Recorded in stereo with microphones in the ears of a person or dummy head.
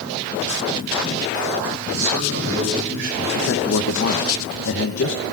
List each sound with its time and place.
1.9 s a man speaking: 80° right, 9 m
3.3 s a man speaking: 70° left (ahead or behind), 1.3 m